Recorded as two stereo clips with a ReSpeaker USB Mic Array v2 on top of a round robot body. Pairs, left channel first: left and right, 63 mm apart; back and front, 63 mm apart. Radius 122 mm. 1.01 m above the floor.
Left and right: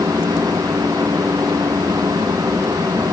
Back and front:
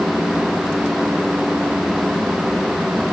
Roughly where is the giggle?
I don't hear a giggle.